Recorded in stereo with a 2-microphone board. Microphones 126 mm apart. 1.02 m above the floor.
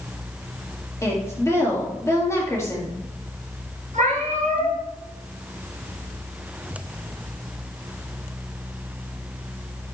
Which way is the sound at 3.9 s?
80° right.